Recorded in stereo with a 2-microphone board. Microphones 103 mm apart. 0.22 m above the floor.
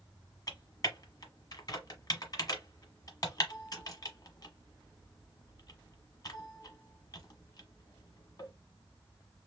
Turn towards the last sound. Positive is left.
turn(degrees=40)  # may be behind; listen again after turning